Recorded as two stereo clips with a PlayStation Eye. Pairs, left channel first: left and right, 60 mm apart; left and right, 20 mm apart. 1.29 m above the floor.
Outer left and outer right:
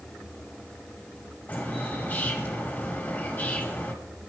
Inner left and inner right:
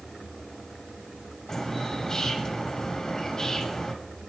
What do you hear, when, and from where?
1.5 s a bird: 30° left (ahead or behind), 2.5 m